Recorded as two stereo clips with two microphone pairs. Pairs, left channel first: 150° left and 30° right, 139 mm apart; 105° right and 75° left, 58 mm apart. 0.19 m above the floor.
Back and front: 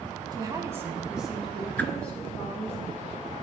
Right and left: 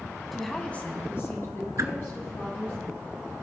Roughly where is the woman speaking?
Ahead.